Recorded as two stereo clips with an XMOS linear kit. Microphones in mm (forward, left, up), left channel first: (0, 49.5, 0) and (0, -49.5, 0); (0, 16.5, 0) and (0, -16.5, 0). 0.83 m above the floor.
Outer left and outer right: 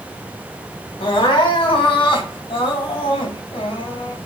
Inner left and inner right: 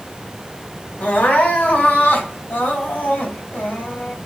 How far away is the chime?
I don't hear a chime.